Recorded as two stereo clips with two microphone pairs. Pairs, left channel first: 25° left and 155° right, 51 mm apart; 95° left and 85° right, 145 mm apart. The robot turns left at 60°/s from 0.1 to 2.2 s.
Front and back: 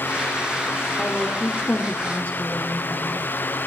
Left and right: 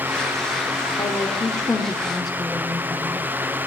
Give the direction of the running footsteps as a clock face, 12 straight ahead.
I don't hear running footsteps.